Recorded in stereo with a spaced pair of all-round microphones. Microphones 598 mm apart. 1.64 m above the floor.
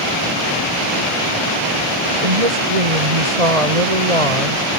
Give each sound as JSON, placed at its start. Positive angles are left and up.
{"t": 2.2, "sound": "a woman speaking", "side_deg": -70}